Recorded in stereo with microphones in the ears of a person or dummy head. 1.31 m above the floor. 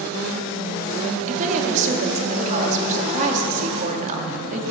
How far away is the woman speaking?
About 2 m.